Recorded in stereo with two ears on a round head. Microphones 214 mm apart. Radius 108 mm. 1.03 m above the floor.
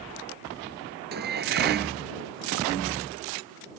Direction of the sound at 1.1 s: 45° right (ahead or behind).